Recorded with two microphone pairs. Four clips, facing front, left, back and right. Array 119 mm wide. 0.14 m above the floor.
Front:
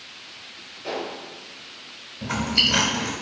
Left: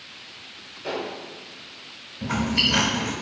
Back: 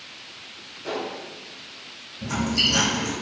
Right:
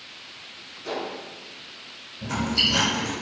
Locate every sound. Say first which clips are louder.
0.8 s a gunshot: left 1 dB, even; 80° left, 1.0 m
2.2 s chewing: left 2 dB, back 1 dB; 25° left, 0.5 m